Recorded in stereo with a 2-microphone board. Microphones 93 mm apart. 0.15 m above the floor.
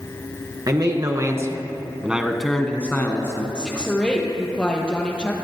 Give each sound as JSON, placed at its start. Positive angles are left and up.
{"t": 0.7, "sound": "a man speaking", "side_deg": -45, "distance_m": 2.0}
{"t": 3.5, "sound": "a woman speaking", "side_deg": 15, "distance_m": 3.0}